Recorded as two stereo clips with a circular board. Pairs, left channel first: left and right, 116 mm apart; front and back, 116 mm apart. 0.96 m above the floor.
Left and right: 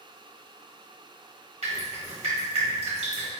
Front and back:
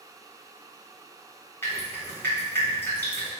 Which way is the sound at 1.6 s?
70° right.